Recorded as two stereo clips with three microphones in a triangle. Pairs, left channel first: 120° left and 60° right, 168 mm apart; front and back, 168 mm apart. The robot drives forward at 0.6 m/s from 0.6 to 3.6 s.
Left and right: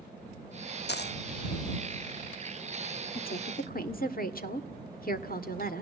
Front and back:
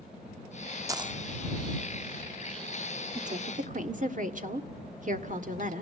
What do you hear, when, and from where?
0.9 s a dropped coin: 110° left, 0.5 m; by 1.2 s 125° left, 0.6 m
3.1 s a woman speaking: 140° left, 1.4 m; by 5.8 s 145° left, 1.7 m